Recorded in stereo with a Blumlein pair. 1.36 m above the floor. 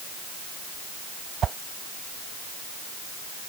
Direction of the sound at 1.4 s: 25° right.